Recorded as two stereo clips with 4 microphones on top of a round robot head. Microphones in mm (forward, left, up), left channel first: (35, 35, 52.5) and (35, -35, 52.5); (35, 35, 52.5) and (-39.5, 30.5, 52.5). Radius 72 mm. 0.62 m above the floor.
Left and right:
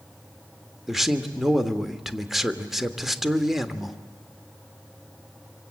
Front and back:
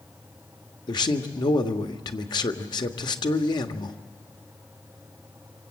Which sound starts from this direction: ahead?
A man speaking, at 0.9 s.